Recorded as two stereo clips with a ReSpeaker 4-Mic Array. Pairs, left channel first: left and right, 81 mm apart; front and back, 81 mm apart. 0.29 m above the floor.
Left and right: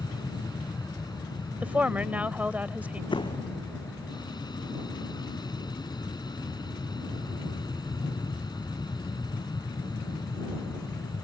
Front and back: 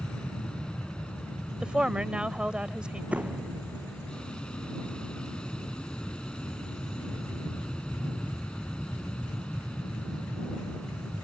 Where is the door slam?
105° left.